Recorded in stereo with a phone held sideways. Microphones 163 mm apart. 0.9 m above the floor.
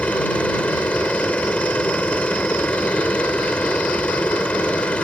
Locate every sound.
0.0 s a machine running: 10° left (ahead or behind)